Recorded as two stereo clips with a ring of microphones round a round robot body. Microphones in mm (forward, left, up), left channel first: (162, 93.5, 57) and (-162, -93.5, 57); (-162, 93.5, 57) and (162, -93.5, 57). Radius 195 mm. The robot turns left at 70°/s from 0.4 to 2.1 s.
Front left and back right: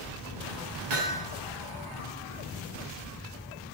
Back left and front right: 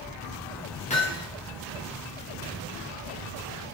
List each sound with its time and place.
0.9 s hammering: 135° right, 5.5 m; by 1.3 s 160° right, 5.5 m